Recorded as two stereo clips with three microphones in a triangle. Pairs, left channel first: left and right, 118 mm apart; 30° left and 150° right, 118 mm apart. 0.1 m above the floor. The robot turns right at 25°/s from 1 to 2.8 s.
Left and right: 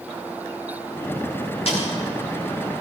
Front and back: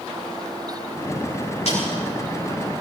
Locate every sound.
1.7 s a snare drum: 55° left, 8.5 m; by 1.8 s 60° left, 8.5 m